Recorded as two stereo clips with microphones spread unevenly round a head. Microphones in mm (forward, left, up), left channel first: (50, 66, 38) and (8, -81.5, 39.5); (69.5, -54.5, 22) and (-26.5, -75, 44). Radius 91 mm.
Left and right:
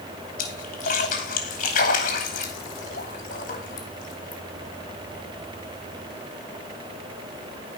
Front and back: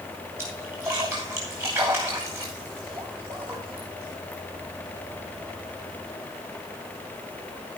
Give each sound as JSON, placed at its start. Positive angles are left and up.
{"t": 0.4, "sound": "a splash", "azimuth_deg": 120, "distance_m": 2.5}